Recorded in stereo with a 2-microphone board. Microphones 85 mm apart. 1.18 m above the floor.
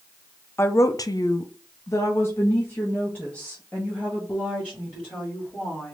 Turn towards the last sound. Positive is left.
turn(degrees=15)  # may be behind; listen again after turning